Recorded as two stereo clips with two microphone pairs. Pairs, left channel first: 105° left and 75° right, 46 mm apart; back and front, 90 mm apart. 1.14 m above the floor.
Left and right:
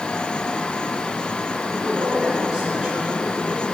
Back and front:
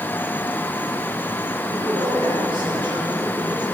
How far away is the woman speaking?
About 5.5 m.